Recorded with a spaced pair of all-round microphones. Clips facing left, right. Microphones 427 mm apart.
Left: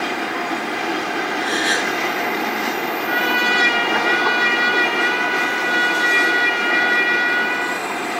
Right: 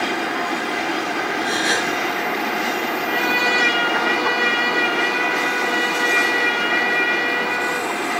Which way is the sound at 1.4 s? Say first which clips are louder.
Even; 60° right (ahead or behind).